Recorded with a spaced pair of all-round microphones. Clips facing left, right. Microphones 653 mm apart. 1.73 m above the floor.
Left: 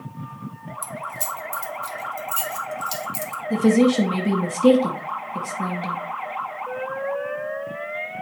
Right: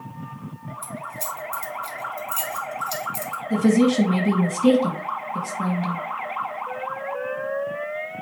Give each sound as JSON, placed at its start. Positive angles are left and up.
{"t": 0.8, "sound": "keys jangling", "side_deg": 40, "distance_m": 1.0}
{"t": 3.5, "sound": "a woman speaking", "side_deg": -5, "distance_m": 1.8}